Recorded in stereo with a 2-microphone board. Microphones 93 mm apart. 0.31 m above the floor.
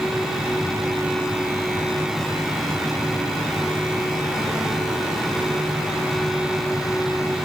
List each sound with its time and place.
Only background noise.